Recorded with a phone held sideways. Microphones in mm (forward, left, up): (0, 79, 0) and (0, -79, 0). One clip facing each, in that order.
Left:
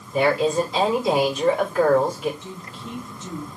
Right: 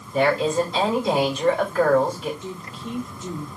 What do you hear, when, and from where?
0.1 s a woman speaking: 5° left (ahead or behind), 3.5 m
2.4 s a woman speaking: 15° right (ahead or behind), 2.5 m